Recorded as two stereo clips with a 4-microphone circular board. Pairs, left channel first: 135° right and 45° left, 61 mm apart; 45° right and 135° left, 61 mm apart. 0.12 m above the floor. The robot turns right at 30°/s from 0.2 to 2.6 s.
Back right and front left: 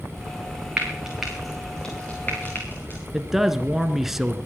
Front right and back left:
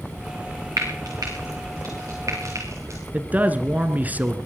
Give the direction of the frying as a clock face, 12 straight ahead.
8 o'clock.